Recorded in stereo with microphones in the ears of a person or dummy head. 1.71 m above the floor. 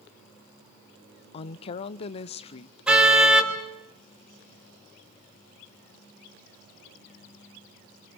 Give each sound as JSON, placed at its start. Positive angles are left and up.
{"t": 1.3, "sound": "a woman speaking", "side_deg": 30, "distance_m": 0.8}
{"t": 2.9, "sound": "a car horn", "side_deg": -5, "distance_m": 4.0}